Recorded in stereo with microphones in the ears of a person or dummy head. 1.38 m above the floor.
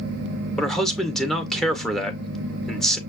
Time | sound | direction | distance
0.6 | a man speaking | centre (ahead or behind) | 0.6 m